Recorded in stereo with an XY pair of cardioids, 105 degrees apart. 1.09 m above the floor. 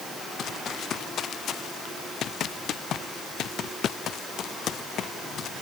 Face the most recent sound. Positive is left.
turn(degrees=60)